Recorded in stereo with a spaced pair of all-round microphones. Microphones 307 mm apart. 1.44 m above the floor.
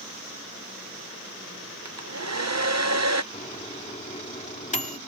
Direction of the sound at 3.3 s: 25° left (ahead or behind).